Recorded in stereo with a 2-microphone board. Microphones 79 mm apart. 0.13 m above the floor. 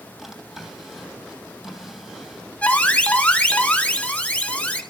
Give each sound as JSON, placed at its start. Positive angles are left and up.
{"t": 0.2, "sound": "a drawer", "side_deg": -5, "distance_m": 3.0}
{"t": 2.6, "sound": "an alarm", "side_deg": 20, "distance_m": 1.2}